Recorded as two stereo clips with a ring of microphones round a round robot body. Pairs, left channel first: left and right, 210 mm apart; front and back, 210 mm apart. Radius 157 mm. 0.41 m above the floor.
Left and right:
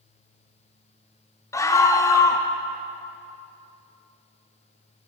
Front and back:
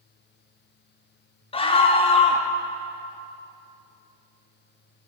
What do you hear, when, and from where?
1.5 s a scream: 30° left, 0.9 m